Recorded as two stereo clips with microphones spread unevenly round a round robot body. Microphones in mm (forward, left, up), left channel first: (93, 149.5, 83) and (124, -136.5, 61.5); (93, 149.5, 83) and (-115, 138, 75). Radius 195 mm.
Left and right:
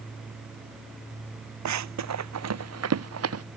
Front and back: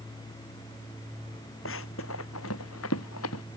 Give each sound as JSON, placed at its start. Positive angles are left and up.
{"t": 1.6, "sound": "running footsteps", "azimuth_deg": -55}